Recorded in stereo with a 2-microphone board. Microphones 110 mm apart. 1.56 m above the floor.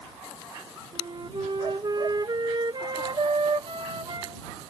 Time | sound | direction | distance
0.9 | a flute | 45° right (ahead or behind) | ?